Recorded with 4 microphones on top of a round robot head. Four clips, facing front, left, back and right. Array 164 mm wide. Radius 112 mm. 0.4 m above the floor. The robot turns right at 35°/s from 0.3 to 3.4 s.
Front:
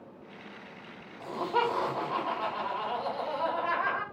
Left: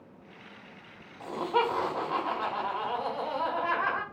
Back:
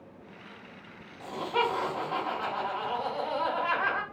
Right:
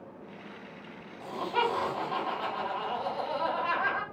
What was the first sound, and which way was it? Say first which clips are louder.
Laughter: left 2 dB, even; 55° left.